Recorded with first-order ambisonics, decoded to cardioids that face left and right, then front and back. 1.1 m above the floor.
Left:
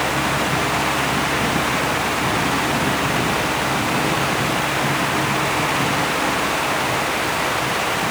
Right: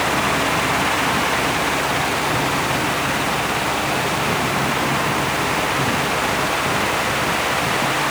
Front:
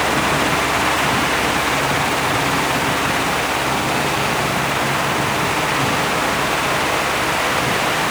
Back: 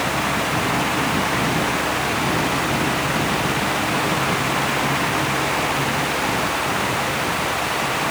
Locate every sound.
Only background noise.